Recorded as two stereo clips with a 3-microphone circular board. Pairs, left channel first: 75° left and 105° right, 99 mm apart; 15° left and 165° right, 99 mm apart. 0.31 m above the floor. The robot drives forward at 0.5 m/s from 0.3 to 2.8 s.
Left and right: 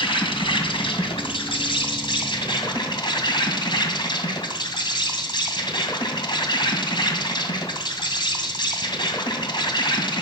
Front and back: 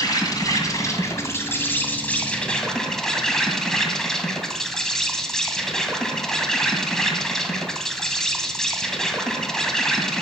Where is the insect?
60° left, 2 m; by 10.2 s 100° left, 2.0 m.